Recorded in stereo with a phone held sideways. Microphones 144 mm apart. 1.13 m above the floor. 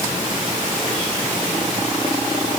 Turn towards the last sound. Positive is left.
No sound to turn to.